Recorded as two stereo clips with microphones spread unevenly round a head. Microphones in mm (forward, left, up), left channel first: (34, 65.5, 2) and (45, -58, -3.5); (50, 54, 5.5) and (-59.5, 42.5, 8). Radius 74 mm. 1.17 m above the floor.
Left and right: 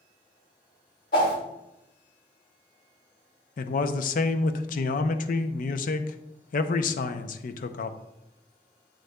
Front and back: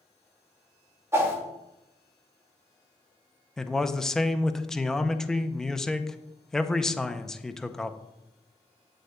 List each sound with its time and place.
1.1 s a whoosh: 120° left, 2 m
3.6 s a man speaking: 90° left, 0.6 m